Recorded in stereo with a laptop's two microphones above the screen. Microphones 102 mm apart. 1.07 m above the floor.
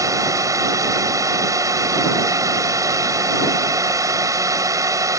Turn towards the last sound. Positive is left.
turn(degrees=-35)  # may be behind; listen again after turning